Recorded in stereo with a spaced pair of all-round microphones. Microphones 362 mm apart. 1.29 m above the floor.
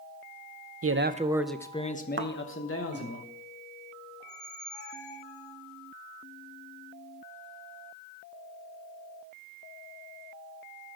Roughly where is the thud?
Right.